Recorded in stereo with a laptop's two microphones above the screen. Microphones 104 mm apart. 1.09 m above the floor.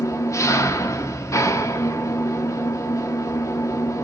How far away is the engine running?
About 0.9 m.